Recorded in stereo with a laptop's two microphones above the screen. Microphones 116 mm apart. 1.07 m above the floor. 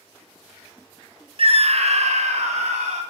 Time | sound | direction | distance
1.4 | a scream | 50° right (ahead or behind) | 0.5 m